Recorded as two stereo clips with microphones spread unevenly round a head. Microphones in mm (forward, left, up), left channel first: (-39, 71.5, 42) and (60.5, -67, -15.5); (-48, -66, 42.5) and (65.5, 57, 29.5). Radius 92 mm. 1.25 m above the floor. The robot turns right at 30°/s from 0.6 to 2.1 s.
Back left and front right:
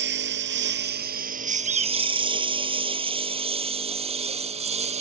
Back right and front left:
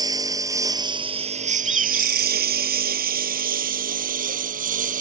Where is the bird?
10° right; by 2.4 s 5° left.